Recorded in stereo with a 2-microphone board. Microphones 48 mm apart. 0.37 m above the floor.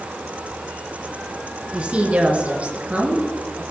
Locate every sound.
1.7 s a woman speaking: 30° right (ahead or behind), 3 m; by 3.6 s 35° right (ahead or behind), 5.5 m